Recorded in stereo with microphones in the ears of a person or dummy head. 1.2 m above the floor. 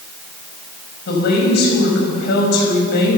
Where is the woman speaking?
55° left (ahead or behind), 6.5 m.